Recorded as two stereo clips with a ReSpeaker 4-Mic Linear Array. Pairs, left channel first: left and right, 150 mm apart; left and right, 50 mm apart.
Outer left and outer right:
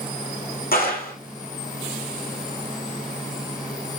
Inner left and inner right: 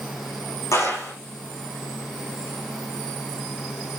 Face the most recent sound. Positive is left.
turn(degrees=80)